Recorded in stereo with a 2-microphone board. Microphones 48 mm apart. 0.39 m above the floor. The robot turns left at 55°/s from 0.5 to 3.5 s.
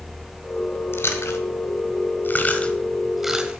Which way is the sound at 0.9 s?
60° left (ahead or behind).